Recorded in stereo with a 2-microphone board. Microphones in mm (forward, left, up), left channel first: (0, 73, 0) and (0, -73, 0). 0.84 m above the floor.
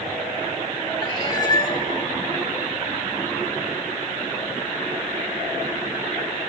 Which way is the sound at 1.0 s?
30° left (ahead or behind).